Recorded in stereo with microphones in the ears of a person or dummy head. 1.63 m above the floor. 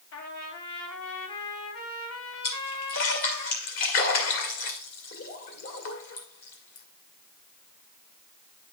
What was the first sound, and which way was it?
A trumpet, 80° left.